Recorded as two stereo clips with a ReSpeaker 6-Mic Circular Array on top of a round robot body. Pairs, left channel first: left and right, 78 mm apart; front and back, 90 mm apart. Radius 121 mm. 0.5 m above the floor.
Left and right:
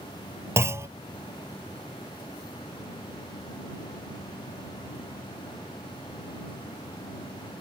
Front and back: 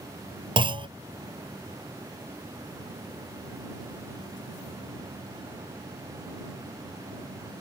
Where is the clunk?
145° right.